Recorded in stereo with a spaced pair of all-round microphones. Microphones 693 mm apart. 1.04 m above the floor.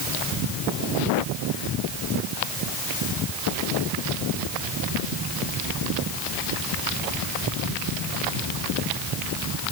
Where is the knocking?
I don't hear knocking.